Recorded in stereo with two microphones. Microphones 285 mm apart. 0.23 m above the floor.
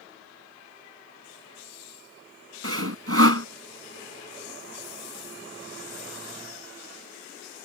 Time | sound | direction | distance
2.6 | sawing | 55° right (ahead or behind) | ?